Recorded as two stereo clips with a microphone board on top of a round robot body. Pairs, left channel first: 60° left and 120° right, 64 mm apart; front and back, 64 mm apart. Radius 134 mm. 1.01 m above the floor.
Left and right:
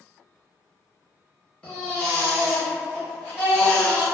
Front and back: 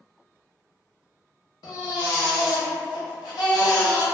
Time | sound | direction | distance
1.6 | a baby crying | 10° right | 0.7 m